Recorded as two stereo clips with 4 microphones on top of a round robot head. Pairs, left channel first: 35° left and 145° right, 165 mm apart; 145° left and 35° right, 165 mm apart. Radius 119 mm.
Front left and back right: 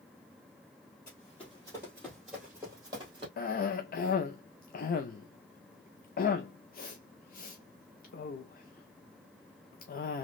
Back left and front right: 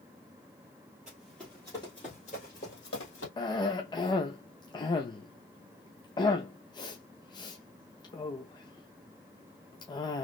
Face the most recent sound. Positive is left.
turn(degrees=75)